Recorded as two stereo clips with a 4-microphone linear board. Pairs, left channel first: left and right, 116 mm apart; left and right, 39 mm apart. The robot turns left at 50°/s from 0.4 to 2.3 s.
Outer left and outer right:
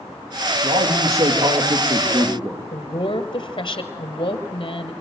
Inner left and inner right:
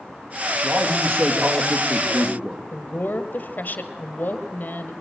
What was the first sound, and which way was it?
A man speaking, 60° right.